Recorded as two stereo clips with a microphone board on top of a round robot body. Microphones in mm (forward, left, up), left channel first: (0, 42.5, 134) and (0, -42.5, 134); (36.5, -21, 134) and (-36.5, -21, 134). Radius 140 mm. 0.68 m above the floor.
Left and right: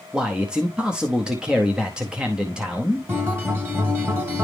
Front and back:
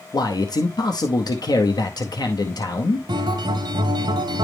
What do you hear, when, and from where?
0.1 s a man speaking: 10° right, 0.9 m
3.1 s a guitar: 155° right, 1.1 m